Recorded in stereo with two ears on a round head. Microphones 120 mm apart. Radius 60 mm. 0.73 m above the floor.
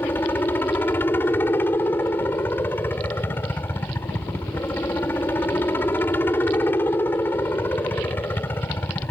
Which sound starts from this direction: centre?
A helicopter, at 0.0 s.